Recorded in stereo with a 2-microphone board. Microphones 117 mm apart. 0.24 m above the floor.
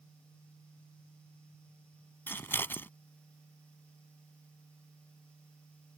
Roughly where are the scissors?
Centre.